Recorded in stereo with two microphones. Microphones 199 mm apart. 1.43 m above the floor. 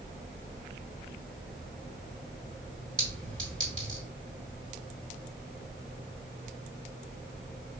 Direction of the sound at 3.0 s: 75° right (ahead or behind).